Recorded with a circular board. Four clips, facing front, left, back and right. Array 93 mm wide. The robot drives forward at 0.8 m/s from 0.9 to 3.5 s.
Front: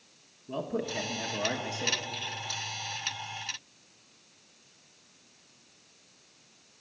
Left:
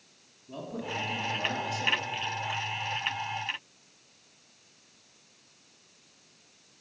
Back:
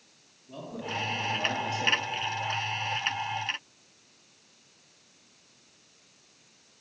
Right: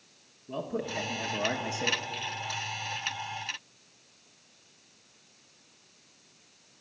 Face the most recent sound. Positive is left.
turn(degrees=-160)